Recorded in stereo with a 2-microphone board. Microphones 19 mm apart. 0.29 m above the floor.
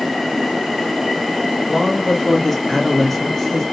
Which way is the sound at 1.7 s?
5° left (ahead or behind).